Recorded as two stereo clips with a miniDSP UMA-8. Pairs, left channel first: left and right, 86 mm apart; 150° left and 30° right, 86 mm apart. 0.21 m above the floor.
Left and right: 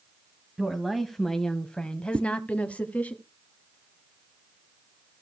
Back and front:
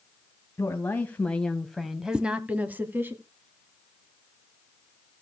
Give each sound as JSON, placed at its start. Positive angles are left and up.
{"t": 0.6, "sound": "a woman speaking", "azimuth_deg": -175, "distance_m": 1.2}
{"t": 2.1, "sound": "a whoosh", "azimuth_deg": -100, "distance_m": 0.5}